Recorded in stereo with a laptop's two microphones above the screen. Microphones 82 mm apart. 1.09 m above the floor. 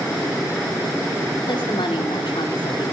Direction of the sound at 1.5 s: 75° left (ahead or behind).